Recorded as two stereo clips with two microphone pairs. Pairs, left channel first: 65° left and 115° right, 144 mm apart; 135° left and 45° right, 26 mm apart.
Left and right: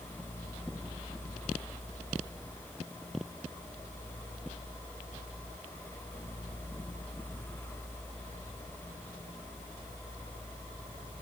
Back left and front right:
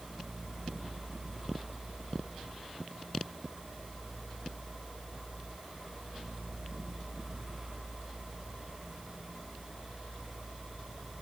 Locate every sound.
Only background noise.